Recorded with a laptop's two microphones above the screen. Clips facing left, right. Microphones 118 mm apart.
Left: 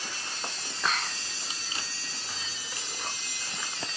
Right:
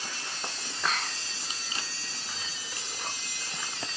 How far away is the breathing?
I don't hear breathing.